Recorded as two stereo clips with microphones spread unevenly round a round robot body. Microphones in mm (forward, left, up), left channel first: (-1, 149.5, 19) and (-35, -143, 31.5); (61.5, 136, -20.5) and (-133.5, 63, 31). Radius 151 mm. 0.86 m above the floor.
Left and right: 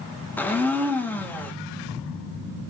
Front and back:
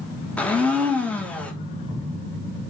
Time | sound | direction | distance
0.4 | a blender | 20° left | 1.0 m